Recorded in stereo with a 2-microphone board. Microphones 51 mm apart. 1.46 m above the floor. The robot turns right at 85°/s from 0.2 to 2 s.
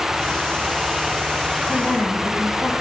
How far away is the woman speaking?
About 1.4 m.